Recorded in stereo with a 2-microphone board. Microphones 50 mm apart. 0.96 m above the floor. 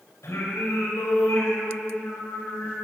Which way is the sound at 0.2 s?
80° left.